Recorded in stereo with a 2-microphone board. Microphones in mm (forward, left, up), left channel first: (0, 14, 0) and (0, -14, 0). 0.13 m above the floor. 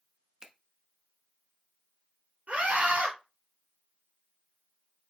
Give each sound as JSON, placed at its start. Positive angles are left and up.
{"t": 0.4, "sound": "a finger snap", "side_deg": -30, "distance_m": 1.0}
{"t": 2.5, "sound": "a scream", "side_deg": -65, "distance_m": 4.0}